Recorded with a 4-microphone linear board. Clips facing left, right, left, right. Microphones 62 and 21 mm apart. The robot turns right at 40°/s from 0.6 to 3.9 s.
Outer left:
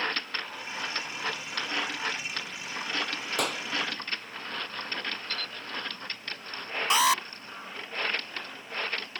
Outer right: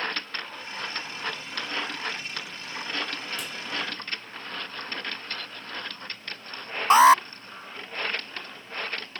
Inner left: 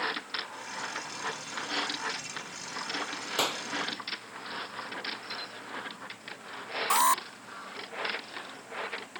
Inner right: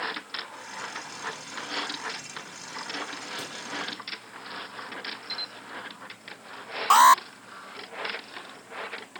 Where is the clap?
60° left (ahead or behind); by 3.6 s 70° left (ahead or behind).